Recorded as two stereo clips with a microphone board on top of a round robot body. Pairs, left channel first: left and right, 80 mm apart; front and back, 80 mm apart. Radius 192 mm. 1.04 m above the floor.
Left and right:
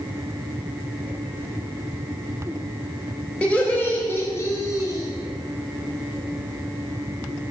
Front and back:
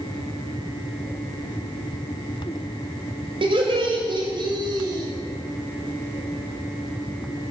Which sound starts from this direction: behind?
Laughter, at 3.4 s.